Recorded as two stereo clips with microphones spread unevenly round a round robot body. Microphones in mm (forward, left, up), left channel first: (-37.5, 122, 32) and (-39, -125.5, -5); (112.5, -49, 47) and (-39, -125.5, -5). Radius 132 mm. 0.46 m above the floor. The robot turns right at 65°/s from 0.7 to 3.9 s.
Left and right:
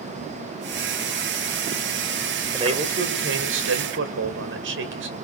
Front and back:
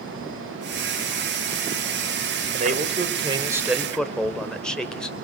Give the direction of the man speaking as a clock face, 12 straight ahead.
5 o'clock.